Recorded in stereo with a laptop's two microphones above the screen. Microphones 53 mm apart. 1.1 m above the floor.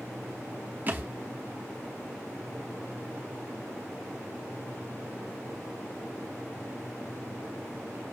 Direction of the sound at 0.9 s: 30° right (ahead or behind).